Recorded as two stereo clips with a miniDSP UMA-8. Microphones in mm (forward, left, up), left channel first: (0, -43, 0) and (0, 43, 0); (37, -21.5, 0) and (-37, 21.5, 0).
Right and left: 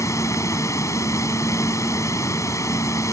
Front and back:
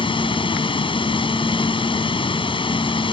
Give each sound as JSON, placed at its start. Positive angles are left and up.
{"t": 0.0, "sound": "running water", "azimuth_deg": -35}